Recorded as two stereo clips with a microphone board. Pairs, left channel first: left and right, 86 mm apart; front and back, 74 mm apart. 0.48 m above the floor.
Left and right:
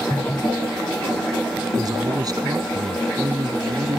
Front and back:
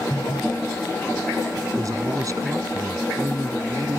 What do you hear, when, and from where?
1.8 s a man speaking: 135° right